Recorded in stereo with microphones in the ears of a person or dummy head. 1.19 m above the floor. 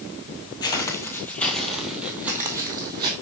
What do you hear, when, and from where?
0.6 s footsteps: 20° left (ahead or behind), 1.6 m; by 3.1 s 20° right (ahead or behind), 2 m